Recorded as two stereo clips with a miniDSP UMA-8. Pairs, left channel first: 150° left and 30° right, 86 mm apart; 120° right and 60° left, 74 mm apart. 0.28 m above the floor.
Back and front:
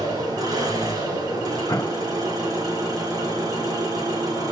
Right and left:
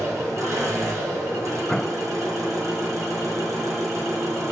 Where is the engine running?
15° left, 5.5 m.